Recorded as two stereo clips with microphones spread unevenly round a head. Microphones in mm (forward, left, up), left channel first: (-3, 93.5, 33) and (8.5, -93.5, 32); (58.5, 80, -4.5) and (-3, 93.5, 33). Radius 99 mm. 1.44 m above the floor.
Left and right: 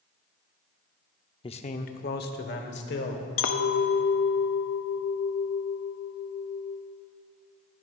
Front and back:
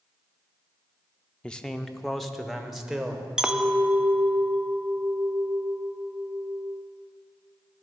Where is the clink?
110° left, 0.6 m.